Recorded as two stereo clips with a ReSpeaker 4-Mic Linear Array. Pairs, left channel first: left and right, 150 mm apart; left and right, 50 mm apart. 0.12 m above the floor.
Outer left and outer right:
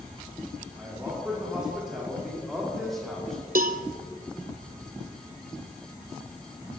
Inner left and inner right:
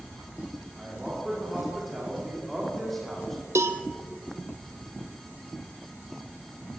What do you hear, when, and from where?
0.8 s a man speaking: 10° right (ahead or behind), 6 m; by 3.5 s 5° left (ahead or behind), 5.5 m
3.5 s a cowbell: 70° right (ahead or behind), 0.9 m